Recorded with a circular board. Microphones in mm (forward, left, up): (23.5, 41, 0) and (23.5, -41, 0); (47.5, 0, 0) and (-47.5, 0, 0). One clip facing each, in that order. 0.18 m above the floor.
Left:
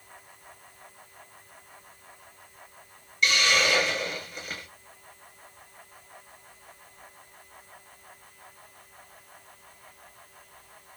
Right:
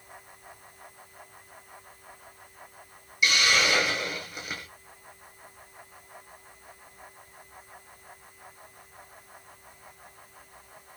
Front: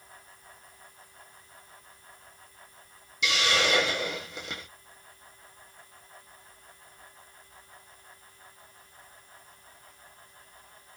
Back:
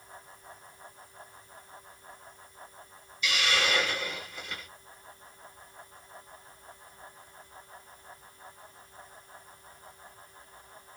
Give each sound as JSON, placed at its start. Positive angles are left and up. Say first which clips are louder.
{"t": 3.2, "sound": "a hiss", "louder": "even, front 2 dB", "azimuth_deg": -10, "distance_m": 1.9}